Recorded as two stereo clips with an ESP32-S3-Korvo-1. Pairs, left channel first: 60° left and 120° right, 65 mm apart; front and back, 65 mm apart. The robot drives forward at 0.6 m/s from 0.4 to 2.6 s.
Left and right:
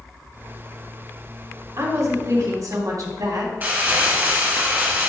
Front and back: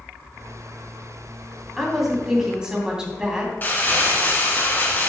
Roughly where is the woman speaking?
Right.